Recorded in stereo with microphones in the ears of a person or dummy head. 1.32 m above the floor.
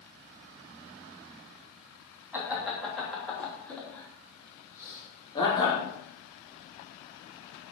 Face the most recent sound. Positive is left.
turn(degrees=20)  # may be behind; listen again after turning